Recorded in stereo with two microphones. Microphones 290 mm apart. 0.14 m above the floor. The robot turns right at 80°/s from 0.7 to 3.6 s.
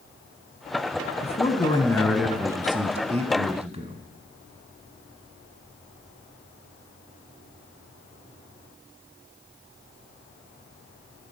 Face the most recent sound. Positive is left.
turn(degrees=-20)  # may be behind; listen again after turning